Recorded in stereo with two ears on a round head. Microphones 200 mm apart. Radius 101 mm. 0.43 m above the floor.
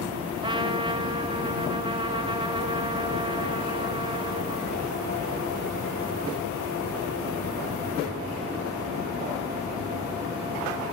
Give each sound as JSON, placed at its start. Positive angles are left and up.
{"t": 0.4, "sound": "a trumpet", "side_deg": -25, "distance_m": 1.2}